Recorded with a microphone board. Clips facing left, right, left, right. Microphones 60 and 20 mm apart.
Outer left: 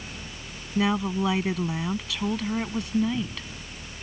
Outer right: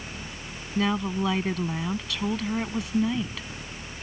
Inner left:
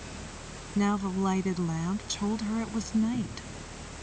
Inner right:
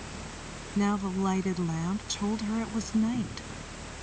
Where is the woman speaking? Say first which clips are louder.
Outer left 1 dB, inner left 1 dB; 5° left (ahead or behind); by 3.5 s 5° right (ahead or behind).